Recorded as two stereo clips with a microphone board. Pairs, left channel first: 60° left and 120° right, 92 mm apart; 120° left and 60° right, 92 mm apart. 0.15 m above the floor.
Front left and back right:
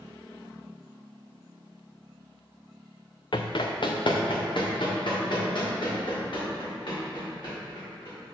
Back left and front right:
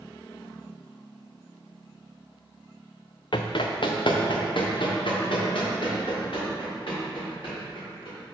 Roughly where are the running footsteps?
Left.